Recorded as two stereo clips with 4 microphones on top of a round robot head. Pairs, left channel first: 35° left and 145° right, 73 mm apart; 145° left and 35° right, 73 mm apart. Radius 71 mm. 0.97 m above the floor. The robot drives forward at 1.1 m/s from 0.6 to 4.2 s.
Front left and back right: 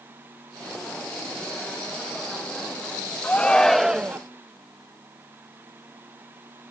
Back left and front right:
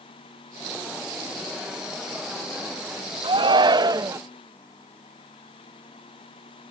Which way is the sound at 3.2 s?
35° right.